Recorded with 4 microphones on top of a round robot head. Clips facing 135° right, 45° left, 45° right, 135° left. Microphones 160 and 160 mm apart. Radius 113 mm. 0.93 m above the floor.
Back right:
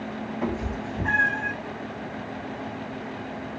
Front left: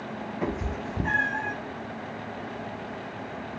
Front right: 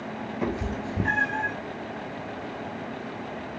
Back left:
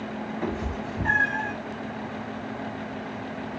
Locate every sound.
0.4 s a cat meowing: 30° right, 1.1 m; by 1.5 s 125° left, 0.6 m